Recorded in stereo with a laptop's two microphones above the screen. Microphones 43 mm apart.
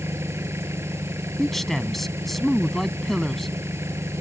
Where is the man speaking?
5° left (ahead or behind).